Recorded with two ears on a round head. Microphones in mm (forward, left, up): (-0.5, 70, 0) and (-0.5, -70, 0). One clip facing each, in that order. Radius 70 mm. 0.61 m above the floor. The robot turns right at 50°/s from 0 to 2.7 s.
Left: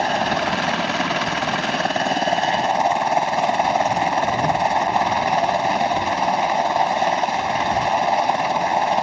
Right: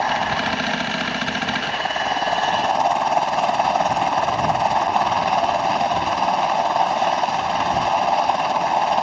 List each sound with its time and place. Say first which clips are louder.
0.0 s a helicopter: left 1 dB; 35° left; by 9.0 s 170° left